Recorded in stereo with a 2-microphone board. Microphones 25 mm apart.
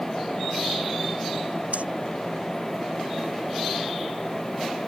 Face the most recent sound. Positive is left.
turn(degrees=-80)